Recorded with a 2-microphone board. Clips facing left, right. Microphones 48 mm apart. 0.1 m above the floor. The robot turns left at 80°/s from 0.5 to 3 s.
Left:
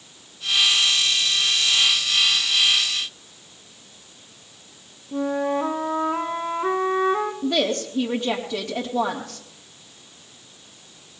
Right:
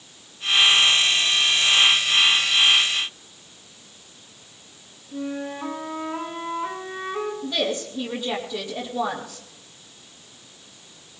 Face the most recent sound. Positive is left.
turn(degrees=65)  # may be behind; listen again after turning